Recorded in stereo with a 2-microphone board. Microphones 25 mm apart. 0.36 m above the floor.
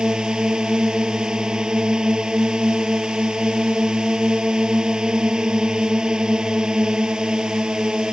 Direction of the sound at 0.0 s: 30° right (ahead or behind).